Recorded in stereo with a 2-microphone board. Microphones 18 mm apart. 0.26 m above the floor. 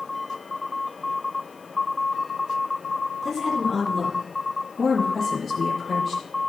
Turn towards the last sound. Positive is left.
turn(degrees=15)  # may be behind; listen again after turning